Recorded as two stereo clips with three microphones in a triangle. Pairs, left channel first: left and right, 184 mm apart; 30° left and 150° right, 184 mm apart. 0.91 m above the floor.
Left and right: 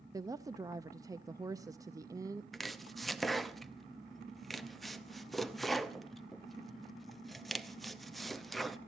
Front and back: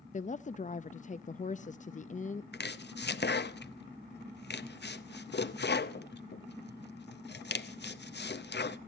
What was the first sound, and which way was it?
A woman speaking, 20° right.